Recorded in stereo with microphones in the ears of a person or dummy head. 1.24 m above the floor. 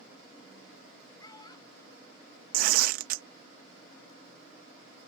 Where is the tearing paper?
55° right (ahead or behind).